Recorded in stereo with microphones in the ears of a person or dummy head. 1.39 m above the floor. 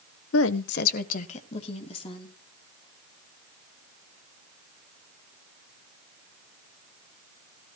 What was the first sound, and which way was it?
A woman speaking, 70° left (ahead or behind).